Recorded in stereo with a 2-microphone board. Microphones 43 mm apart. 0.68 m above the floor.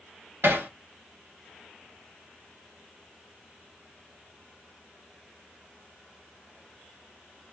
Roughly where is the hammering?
Right.